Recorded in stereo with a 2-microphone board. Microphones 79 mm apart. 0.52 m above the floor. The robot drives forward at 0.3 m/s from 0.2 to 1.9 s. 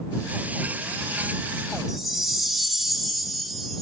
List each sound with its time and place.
1.9 s a chime: centre (ahead or behind), 1.4 m